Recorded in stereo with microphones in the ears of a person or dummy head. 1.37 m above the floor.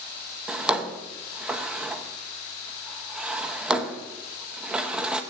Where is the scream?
I don't hear a scream.